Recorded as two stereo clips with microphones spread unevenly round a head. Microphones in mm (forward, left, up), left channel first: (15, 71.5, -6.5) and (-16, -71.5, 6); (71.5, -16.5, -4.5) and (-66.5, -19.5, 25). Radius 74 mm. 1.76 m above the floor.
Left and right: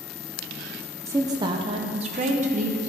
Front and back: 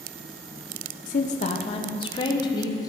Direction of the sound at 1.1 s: 35° right.